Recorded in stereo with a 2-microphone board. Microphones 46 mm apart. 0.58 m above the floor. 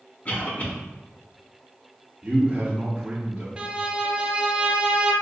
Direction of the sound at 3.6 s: 25° right (ahead or behind).